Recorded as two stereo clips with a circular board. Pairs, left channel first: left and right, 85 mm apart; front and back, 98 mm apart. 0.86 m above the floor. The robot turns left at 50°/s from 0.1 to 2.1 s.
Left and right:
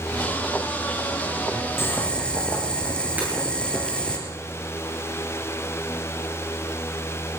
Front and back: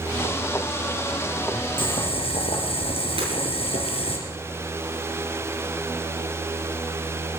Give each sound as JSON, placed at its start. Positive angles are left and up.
{"t": 1.8, "sound": "boiling", "azimuth_deg": 30, "distance_m": 3.0}
{"t": 3.2, "sound": "breaking glass", "azimuth_deg": -165, "distance_m": 9.0}